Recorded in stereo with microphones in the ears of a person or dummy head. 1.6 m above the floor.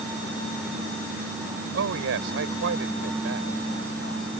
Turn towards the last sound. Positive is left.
turn(degrees=-85)